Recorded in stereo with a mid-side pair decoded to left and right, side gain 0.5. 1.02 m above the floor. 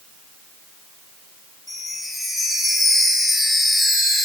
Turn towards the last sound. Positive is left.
turn(degrees=15)